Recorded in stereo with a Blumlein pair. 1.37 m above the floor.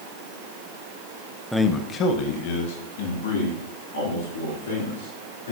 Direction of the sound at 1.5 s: Straight ahead.